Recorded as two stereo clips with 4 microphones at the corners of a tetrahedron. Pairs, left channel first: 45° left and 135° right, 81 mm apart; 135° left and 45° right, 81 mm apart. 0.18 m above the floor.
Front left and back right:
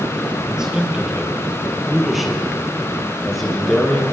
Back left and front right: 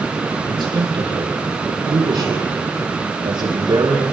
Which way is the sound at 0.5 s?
55° right.